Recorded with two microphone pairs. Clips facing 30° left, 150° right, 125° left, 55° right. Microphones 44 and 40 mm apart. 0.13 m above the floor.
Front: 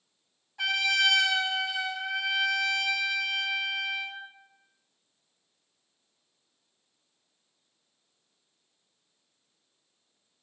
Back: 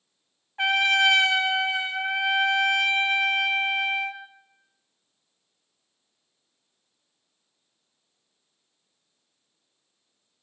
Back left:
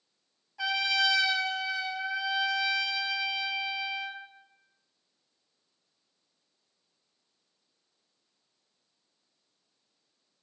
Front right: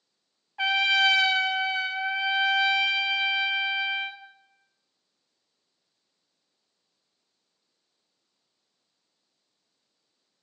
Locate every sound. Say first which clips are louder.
0.6 s a trumpet: back 5 dB, front right 6 dB; 100° right, 0.5 m